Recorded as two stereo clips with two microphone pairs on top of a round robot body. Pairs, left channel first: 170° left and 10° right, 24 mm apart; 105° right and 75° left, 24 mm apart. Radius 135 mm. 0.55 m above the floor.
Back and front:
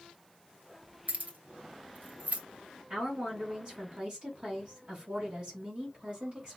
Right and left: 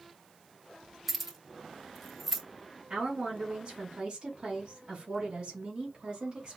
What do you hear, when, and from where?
1.1 s keys jangling: 10° right, 1.2 m
2.9 s a woman speaking: 30° left, 2.5 m